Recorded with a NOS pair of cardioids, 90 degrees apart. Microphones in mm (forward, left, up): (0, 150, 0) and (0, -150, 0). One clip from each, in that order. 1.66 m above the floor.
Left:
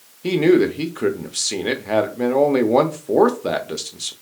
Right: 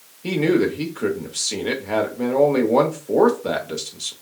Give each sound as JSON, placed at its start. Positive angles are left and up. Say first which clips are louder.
{"t": 0.2, "sound": "a man speaking", "louder": "left 4 dB", "azimuth_deg": 20, "distance_m": 0.8}